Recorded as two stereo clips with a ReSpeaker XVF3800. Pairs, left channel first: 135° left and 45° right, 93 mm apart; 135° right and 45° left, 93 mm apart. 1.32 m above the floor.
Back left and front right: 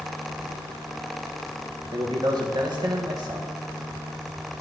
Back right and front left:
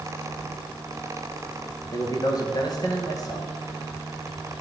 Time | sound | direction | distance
0.4 | keys jangling | 30° left | 0.7 m
1.9 | a man speaking | 85° right | 1.6 m